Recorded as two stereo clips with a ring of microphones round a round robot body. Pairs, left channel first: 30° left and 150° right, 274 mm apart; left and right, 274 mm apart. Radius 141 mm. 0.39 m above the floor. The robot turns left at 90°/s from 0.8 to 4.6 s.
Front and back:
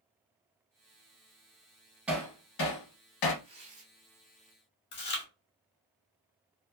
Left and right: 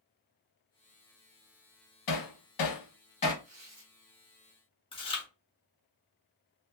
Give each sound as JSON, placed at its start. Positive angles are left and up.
{"t": 2.1, "sound": "hammering", "azimuth_deg": 125, "distance_m": 0.8}
{"t": 3.4, "sound": "tearing paper", "azimuth_deg": -105, "distance_m": 1.3}
{"t": 4.9, "sound": "chewing", "azimuth_deg": 30, "distance_m": 0.9}